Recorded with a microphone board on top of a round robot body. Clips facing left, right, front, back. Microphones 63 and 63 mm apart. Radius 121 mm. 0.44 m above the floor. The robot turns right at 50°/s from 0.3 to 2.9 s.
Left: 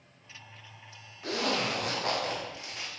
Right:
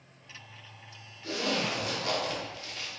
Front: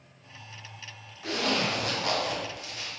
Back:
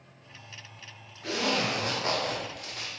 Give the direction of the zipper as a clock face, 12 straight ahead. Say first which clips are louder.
Left 1 dB, even; 9 o'clock.